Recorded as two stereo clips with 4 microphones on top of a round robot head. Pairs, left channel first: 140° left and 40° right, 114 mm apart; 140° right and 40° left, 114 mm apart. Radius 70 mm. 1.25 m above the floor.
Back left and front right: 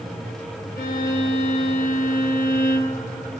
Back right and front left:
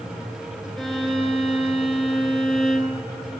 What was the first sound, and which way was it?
A violin, 130° left.